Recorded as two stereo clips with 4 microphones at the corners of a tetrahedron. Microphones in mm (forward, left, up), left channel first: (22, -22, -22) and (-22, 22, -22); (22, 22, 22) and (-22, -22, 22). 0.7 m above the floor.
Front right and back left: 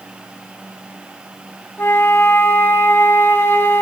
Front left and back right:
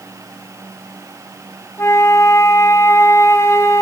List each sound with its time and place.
1.8 s a flute: 5° left, 1.3 m